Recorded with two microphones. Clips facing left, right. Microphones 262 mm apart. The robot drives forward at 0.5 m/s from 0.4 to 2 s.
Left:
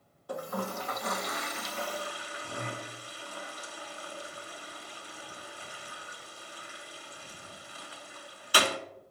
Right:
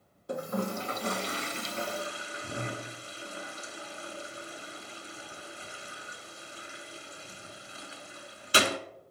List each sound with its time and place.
0.3 s a toilet flushing: 25° right (ahead or behind), 0.7 m